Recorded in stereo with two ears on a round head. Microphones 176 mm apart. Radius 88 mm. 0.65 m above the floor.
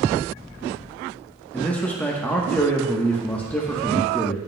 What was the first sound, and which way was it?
A man speaking, 10° left (ahead or behind).